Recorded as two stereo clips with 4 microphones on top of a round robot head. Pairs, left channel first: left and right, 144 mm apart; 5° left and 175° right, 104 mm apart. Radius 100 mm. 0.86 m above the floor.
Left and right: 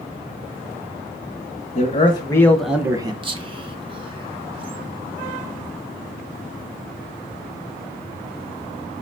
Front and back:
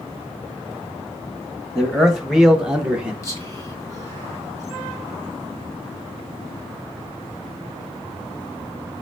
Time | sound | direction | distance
1.8 | a man speaking | 95° left | 0.9 m
3.2 | whispering | 50° right | 0.9 m